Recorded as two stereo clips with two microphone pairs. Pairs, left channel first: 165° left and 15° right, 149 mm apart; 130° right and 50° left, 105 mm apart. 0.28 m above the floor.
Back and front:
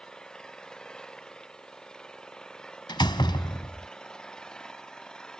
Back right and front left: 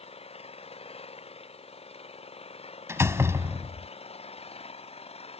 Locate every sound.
0.0 s an engine running: 110° right
2.9 s a door slam: 110° left